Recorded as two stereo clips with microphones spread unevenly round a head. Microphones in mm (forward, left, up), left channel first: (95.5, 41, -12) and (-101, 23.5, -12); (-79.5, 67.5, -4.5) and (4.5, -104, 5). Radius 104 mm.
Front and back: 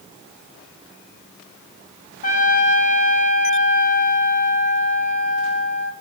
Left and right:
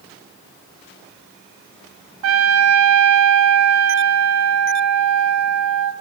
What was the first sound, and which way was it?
A trumpet, 50° right.